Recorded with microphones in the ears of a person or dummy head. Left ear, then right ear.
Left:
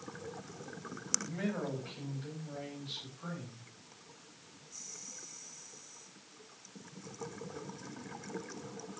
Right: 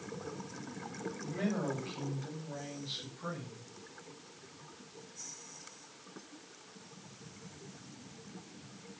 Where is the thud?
I don't hear a thud.